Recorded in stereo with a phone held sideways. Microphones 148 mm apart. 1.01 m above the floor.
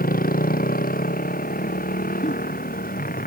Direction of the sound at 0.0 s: 75° left (ahead or behind).